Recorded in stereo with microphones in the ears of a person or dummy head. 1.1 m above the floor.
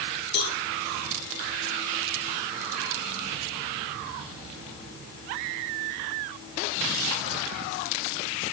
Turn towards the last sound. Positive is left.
turn(degrees=80)